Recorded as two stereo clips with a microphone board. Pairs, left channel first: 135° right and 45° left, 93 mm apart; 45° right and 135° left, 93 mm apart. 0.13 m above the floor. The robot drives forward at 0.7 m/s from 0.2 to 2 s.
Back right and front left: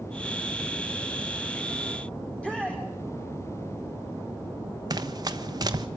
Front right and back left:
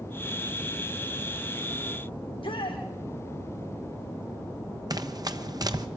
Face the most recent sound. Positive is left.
turn(degrees=90)